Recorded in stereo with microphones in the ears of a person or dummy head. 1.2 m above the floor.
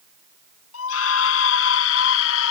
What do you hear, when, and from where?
0.7 s a scream: 70° left (ahead or behind)